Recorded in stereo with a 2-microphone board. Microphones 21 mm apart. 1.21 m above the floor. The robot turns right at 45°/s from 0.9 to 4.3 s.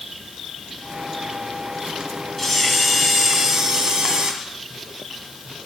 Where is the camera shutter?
175° left, 1.5 m; by 4.3 s 100° right, 1.5 m.